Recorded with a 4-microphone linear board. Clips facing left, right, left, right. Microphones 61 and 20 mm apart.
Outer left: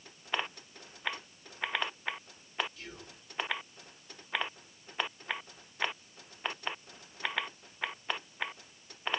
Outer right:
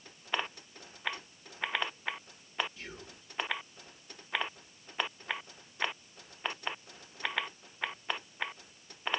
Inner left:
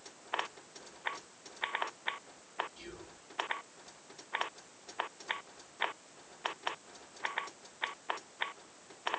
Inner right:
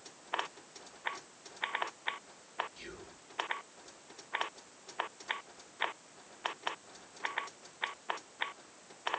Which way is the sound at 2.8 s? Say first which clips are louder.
Outer right 1 dB, even; 25° right (ahead or behind).